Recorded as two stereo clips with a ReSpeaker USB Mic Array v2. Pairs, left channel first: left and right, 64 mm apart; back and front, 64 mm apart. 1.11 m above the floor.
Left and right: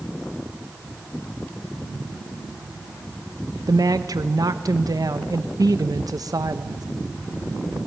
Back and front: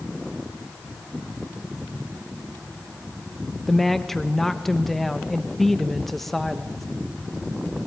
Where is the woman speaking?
95° right, 1.0 m.